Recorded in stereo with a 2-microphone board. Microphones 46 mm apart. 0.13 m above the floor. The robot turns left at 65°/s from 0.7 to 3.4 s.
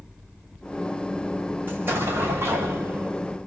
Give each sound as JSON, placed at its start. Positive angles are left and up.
{"t": 1.7, "sound": "an explosion", "azimuth_deg": -40, "distance_m": 3.5}